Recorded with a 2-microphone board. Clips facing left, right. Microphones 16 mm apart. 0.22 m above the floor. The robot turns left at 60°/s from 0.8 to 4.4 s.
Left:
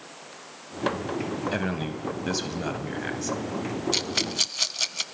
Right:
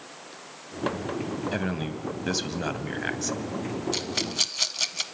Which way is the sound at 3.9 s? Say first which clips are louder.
Left 2 dB; 20° left (ahead or behind).